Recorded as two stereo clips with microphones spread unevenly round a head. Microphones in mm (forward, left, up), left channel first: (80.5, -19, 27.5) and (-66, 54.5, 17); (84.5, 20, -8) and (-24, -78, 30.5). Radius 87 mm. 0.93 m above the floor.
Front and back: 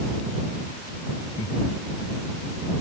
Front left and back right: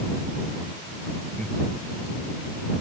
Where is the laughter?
40° right.